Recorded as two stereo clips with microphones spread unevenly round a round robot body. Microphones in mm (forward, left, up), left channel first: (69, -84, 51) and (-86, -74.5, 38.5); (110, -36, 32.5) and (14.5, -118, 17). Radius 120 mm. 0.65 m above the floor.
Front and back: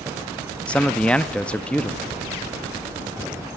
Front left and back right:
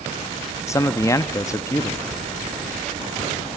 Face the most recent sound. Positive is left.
turn(degrees=80)